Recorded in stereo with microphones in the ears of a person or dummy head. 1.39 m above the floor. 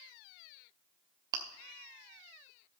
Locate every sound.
1.3 s chewing: 20° right (ahead or behind), 1.0 m